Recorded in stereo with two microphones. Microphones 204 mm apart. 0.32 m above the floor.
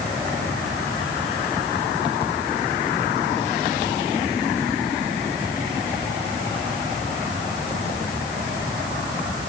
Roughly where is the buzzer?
I don't hear a buzzer.